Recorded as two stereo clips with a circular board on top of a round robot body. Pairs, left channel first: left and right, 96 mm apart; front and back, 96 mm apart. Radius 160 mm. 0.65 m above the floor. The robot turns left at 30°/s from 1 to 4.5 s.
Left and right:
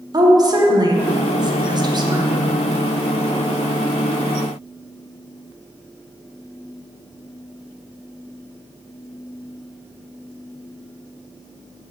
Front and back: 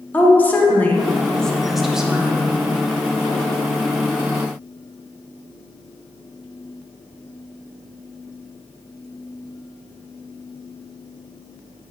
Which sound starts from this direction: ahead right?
A woman speaking, at 0.1 s.